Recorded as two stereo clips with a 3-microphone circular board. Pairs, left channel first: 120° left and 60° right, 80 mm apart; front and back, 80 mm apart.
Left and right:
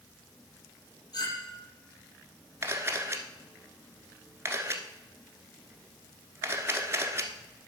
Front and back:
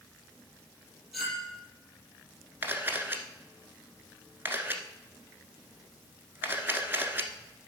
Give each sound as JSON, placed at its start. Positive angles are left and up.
{"t": 1.1, "sound": "a clink", "azimuth_deg": 95, "distance_m": 5.5}
{"t": 2.6, "sound": "a camera shutter", "azimuth_deg": -115, "distance_m": 1.2}